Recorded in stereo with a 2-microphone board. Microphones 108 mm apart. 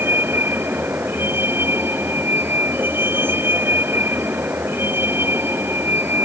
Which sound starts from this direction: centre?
A vehicle, at 0.0 s.